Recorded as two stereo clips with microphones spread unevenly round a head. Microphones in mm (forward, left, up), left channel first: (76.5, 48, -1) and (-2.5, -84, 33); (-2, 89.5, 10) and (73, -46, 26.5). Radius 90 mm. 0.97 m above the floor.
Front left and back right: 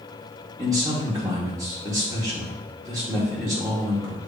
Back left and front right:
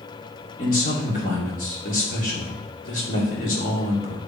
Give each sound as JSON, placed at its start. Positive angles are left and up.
{"t": 0.6, "sound": "a man speaking", "azimuth_deg": 165, "distance_m": 2.0}